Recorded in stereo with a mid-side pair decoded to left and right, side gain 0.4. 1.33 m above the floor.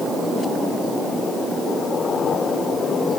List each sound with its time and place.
Only background noise.